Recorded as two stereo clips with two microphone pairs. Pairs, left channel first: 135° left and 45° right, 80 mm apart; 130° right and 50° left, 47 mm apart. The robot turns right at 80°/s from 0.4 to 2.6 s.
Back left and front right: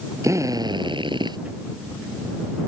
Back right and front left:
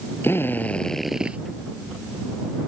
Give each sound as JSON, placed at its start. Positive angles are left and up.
{"t": 0.2, "sound": "a drill", "azimuth_deg": -90}